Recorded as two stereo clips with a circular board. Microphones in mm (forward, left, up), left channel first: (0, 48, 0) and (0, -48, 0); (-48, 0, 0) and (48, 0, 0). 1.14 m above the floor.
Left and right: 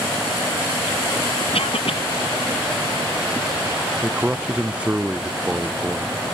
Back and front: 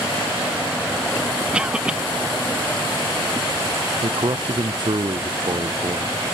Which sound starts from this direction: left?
A cough, at 1.5 s.